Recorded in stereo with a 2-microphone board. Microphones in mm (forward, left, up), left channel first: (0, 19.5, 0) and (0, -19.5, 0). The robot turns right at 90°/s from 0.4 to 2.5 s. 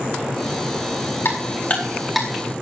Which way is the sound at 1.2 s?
85° left.